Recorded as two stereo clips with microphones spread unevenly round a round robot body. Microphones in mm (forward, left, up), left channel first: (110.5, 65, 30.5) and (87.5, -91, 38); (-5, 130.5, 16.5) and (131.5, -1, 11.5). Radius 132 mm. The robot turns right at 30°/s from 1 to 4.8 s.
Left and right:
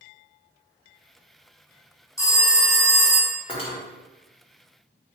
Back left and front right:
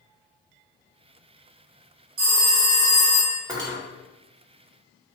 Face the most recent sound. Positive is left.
turn(degrees=60)